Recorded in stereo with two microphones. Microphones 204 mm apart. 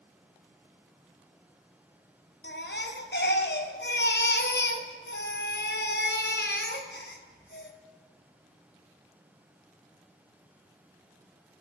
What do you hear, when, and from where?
2.4 s a baby crying: 60° left (ahead or behind), 1.2 m